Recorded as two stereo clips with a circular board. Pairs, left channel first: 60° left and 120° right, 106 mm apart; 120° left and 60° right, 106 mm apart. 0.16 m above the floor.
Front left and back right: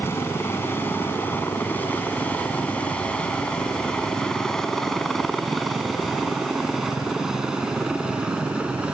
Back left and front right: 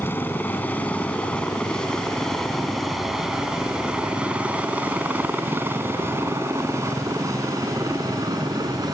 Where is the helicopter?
85° left; by 8.9 s 45° right.